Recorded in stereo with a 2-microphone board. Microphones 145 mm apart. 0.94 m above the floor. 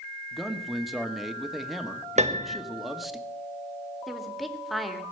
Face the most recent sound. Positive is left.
turn(degrees=0)  # may be behind; listen again after turning